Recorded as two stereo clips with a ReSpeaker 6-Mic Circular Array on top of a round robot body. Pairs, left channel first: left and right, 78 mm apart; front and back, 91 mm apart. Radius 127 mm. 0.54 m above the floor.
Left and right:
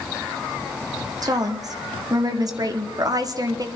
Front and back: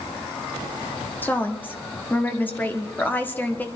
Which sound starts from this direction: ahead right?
A woman speaking, at 1.2 s.